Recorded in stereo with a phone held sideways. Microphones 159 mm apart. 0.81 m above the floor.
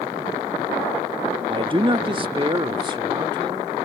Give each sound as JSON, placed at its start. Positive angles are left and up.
{"t": 1.5, "sound": "a man speaking", "side_deg": -30}